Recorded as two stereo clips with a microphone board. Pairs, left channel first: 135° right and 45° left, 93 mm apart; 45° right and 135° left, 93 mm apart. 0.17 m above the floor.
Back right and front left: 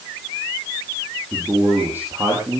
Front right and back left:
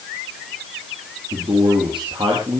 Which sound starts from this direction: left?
A man speaking, at 1.3 s.